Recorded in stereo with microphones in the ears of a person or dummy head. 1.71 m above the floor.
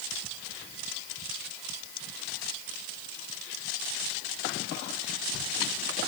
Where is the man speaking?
No man speaking in this recording.